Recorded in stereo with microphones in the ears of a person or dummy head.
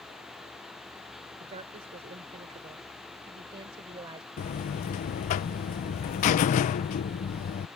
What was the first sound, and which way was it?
A woman speaking, 35° right (ahead or behind).